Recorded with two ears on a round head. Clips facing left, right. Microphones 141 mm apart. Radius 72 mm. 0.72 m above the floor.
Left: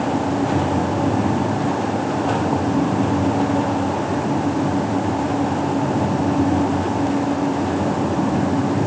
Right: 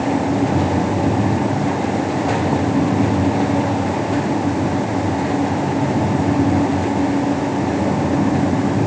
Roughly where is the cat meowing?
No cat meowing in this recording.